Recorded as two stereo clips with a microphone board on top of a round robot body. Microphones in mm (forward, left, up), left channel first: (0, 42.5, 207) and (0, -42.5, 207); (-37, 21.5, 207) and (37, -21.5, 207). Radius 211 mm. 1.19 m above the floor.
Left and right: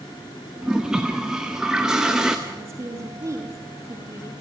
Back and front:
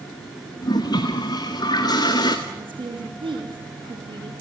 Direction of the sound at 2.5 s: 35° right.